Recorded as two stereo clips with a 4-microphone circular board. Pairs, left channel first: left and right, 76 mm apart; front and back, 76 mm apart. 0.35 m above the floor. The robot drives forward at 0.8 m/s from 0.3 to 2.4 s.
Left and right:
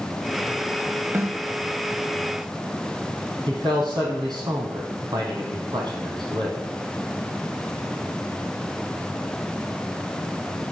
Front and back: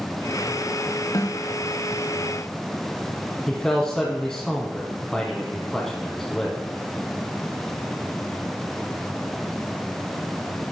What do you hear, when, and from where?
1.1 s a snare drum: 40° right, 0.8 m; by 1.4 s 50° right, 0.6 m
3.5 s a man speaking: 90° right, 3 m